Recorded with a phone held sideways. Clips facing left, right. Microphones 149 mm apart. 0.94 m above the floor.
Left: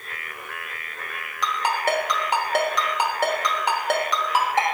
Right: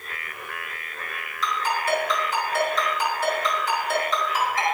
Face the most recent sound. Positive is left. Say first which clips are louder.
# left 2 dB
turn(degrees=70)  # may be behind; listen again after turning